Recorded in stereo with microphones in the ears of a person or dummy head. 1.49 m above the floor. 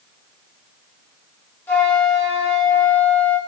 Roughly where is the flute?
Centre.